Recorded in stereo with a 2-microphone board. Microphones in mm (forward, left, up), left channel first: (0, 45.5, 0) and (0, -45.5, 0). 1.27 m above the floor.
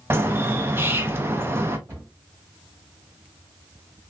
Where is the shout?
No shout in this recording.